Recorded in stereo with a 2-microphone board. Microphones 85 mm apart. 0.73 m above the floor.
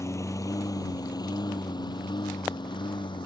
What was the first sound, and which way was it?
A lawn mower, 35° left (ahead or behind).